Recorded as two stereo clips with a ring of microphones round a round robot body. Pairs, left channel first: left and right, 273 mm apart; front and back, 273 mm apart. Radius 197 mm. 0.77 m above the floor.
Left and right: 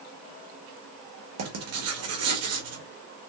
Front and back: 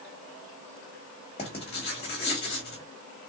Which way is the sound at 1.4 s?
70° right.